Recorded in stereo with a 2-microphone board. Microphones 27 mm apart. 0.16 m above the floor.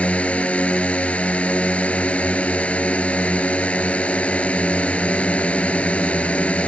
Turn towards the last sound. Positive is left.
turn(degrees=55)  # may be behind; listen again after turning